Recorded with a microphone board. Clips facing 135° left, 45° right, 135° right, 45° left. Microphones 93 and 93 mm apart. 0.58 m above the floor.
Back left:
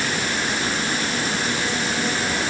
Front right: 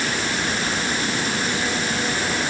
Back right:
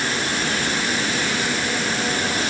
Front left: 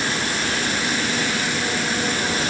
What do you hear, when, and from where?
Only background noise.